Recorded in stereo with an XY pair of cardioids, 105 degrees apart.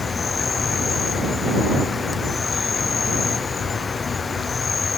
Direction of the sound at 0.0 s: 35° left.